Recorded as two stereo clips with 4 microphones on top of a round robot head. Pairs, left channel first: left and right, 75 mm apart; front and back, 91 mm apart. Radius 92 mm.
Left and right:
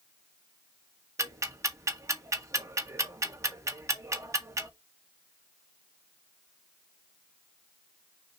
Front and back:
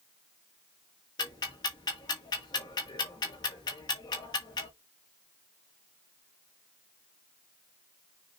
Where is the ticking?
45° right, 1.8 m.